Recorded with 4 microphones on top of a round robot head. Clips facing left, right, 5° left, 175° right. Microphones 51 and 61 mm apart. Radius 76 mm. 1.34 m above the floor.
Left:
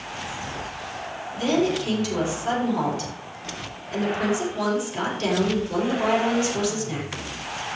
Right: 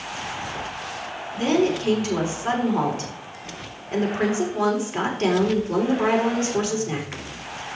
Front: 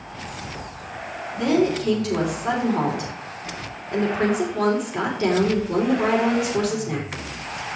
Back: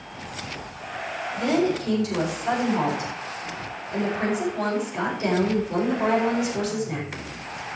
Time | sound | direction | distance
1.4 | a woman speaking | 40° right | 3.5 m